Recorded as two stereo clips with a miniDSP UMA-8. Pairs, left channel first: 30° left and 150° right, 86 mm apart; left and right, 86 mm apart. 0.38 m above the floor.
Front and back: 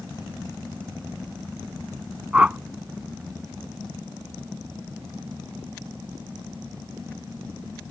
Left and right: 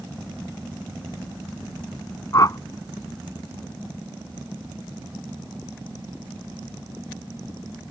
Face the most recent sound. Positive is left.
turn(degrees=135)